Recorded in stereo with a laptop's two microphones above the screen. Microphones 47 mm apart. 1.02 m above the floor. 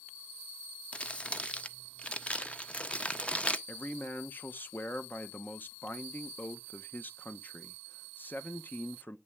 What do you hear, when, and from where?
0.9 s crumpling: 25° left (ahead or behind), 0.6 m
3.7 s a man speaking: 40° left (ahead or behind), 0.7 m